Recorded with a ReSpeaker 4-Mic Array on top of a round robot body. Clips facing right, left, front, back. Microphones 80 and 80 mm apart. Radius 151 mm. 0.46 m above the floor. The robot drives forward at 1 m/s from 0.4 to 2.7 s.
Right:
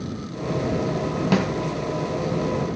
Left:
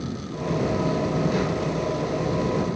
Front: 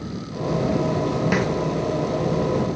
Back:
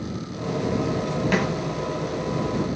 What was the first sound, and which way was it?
A snare drum, 85° right.